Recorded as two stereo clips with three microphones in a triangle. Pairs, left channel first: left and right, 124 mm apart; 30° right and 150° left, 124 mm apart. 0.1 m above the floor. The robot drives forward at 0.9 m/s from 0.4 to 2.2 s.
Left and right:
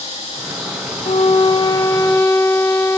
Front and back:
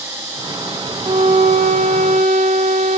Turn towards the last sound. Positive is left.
turn(degrees=160)